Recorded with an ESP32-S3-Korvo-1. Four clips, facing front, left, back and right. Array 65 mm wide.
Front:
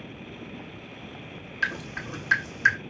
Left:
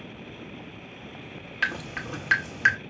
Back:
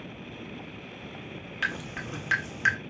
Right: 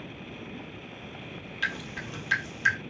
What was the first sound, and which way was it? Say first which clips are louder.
Dripping: left 4 dB, front 2 dB; 100° left.